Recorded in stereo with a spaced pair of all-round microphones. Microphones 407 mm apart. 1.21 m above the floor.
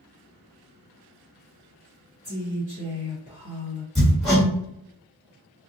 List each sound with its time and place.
2.2 s a woman speaking: 35° right (ahead or behind), 1.1 m
4.0 s hammering: centre (ahead or behind), 1.4 m